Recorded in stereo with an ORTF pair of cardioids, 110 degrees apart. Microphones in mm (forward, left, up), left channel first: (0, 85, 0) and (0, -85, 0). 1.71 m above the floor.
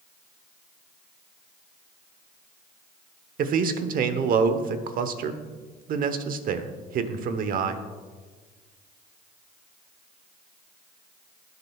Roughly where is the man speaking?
Ahead right.